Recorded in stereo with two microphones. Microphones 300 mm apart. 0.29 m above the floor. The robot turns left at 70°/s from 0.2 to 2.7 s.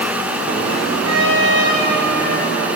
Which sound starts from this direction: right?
A trumpet, at 1.0 s.